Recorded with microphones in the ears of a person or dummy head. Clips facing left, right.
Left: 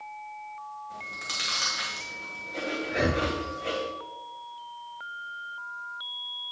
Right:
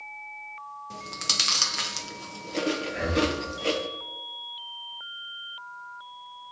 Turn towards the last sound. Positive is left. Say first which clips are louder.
# left 3 dB
turn(degrees=65)  # may be behind; listen again after turning